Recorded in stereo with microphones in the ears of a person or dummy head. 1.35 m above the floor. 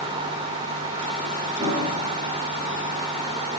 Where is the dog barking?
I don't hear a dog barking.